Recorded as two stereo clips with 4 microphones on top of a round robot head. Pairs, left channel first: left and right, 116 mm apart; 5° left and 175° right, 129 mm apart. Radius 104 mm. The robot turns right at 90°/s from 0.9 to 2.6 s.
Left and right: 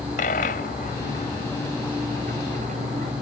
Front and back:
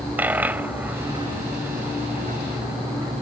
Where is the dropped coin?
110° left; by 3.1 s 95° right.